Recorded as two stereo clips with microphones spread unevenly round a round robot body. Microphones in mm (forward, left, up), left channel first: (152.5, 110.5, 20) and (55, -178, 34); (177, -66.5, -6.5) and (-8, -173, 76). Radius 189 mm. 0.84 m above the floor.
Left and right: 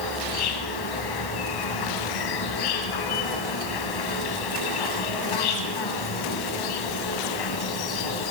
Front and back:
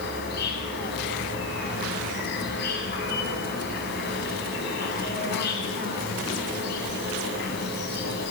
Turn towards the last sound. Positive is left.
turn(degrees=85)